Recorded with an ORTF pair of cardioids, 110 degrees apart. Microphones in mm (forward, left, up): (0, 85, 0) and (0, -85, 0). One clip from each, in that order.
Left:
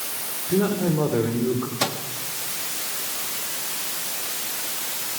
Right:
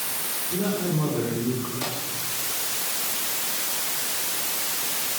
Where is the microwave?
70° left, 3 m.